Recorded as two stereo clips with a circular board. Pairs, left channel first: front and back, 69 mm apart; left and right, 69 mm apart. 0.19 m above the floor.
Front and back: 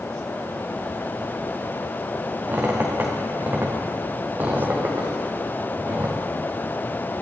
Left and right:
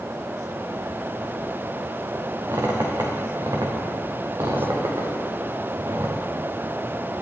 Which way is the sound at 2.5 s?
125° right.